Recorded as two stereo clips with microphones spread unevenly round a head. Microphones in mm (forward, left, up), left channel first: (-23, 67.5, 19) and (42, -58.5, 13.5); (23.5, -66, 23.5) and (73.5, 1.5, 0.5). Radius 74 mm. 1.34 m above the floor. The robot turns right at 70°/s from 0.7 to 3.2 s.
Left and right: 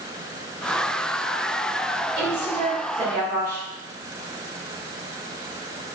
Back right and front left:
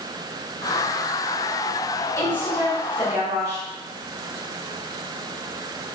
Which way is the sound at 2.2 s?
65° right.